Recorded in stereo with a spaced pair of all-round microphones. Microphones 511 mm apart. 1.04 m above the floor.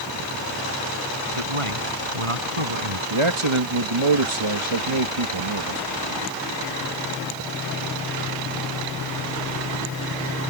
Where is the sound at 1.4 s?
85° right.